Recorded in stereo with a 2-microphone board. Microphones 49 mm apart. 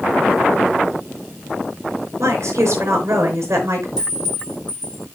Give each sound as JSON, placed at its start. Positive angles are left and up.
{"t": 2.2, "sound": "a woman speaking", "side_deg": -70, "distance_m": 5.0}
{"t": 4.0, "sound": "a clink", "side_deg": -15, "distance_m": 5.0}